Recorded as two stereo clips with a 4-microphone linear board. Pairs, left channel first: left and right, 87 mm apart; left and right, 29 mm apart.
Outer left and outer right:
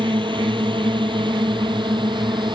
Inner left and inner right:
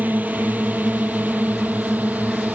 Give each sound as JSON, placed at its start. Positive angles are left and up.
{"t": 0.0, "sound": "a drone", "side_deg": -70}